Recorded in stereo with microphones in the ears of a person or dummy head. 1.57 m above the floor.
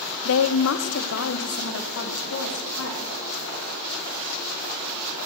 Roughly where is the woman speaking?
Left.